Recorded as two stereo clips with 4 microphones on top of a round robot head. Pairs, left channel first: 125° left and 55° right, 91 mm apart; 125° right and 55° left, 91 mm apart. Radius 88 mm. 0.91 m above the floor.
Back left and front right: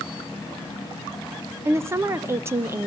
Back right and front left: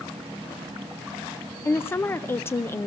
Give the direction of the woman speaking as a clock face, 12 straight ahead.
3 o'clock.